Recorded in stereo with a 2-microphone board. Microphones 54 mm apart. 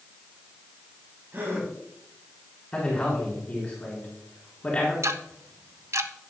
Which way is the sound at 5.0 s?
65° right (ahead or behind).